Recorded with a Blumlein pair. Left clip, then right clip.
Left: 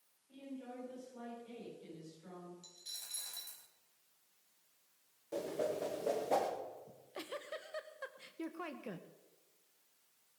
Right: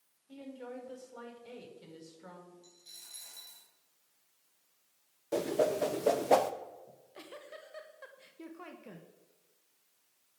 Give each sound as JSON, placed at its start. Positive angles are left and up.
{"t": 0.3, "sound": "a woman speaking", "azimuth_deg": -60, "distance_m": 5.5}
{"t": 2.6, "sound": "a dropped coin", "azimuth_deg": 65, "distance_m": 3.5}
{"t": 5.3, "sound": "a whoosh", "azimuth_deg": -25, "distance_m": 1.2}
{"t": 6.9, "sound": "a giggle", "azimuth_deg": 15, "distance_m": 1.1}